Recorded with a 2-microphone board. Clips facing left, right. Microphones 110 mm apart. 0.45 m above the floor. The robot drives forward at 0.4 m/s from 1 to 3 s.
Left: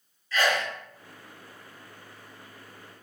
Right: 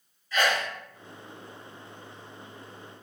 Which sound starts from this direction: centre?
A sneeze, at 0.3 s.